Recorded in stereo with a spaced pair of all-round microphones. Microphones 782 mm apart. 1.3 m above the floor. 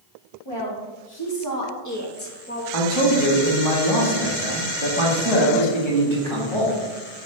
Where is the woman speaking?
30° left (ahead or behind), 2 m; by 2.6 s 10° left (ahead or behind), 0.9 m.